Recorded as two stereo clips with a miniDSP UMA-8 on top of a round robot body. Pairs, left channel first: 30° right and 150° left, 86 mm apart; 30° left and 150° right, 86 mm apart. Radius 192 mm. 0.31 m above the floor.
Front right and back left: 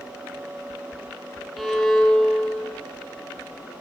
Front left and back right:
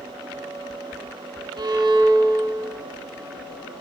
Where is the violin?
120° right, 5 m.